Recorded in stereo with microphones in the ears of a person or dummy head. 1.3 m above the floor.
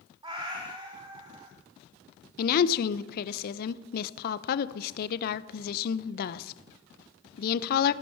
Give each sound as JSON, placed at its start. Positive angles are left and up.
{"t": 0.2, "sound": "a cat meowing", "side_deg": -20, "distance_m": 1.9}
{"t": 2.4, "sound": "a woman speaking", "side_deg": 55, "distance_m": 0.8}